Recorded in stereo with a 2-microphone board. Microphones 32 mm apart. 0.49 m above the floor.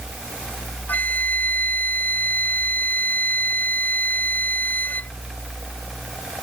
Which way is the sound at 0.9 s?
70° left (ahead or behind).